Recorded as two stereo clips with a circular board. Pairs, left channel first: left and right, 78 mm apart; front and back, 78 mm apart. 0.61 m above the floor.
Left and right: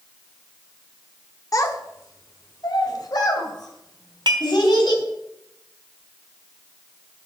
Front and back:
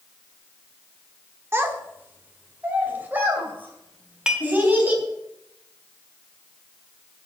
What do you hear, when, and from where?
1.5 s a child speaking: 125° left, 1.3 m; by 5.0 s 110° left, 4.5 m
4.3 s dishes clattering: 100° right, 1.2 m